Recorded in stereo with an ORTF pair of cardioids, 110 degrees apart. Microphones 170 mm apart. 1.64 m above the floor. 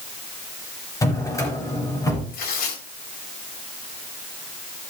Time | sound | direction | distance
1.0 | a drawer | 20° left | 4.5 m
2.3 | tearing paper | 65° left | 4 m